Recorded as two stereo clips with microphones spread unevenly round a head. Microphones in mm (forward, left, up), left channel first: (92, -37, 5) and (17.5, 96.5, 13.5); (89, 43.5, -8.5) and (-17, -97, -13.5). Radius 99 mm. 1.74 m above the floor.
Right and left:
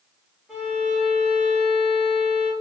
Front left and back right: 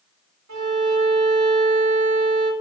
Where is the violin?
150° right, 1.7 m.